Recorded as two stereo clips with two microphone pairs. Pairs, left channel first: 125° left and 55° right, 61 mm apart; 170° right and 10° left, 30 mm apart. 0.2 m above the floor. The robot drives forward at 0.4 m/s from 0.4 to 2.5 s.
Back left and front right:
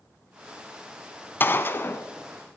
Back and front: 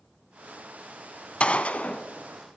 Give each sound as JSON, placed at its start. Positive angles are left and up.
{"t": 1.4, "sound": "a gunshot", "azimuth_deg": 165, "distance_m": 0.6}